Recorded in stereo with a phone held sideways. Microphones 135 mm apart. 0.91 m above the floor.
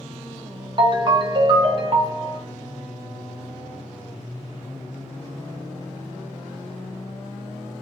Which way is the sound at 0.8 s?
35° right (ahead or behind).